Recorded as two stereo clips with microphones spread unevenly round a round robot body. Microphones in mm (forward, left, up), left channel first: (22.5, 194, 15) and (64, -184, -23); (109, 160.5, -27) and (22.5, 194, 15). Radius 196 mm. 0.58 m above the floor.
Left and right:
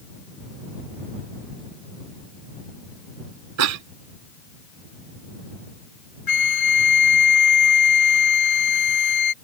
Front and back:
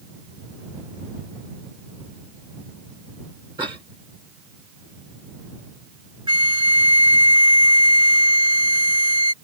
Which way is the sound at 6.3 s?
140° left.